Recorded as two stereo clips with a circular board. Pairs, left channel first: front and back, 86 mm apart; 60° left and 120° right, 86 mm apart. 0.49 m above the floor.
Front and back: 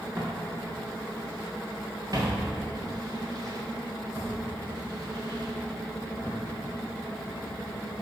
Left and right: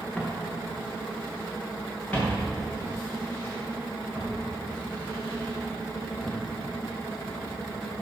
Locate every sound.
0.2 s footsteps: 135° left, 5.5 m